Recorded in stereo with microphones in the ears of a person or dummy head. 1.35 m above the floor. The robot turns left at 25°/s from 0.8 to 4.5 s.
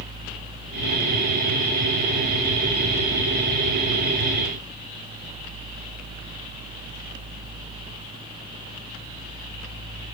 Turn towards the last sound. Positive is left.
No sound to turn to.